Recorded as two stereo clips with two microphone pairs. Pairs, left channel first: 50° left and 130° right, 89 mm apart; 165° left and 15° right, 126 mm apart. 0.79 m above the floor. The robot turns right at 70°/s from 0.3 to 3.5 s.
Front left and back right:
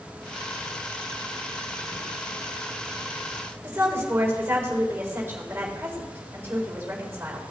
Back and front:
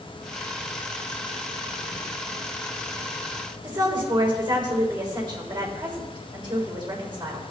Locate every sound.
3.6 s a woman speaking: 65° right, 3.5 m